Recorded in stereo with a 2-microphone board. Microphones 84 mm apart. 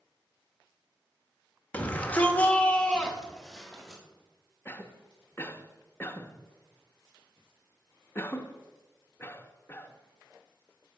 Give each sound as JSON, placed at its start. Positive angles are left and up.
{"t": 1.7, "sound": "a shout", "side_deg": 15, "distance_m": 1.4}
{"t": 4.7, "sound": "a cough", "side_deg": 25, "distance_m": 0.8}